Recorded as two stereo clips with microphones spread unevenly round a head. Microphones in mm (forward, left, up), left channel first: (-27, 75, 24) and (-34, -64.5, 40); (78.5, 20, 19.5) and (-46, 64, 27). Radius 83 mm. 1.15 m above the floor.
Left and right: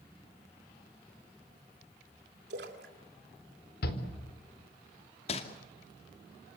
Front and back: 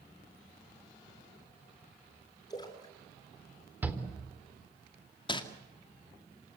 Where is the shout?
85° left, 4 m.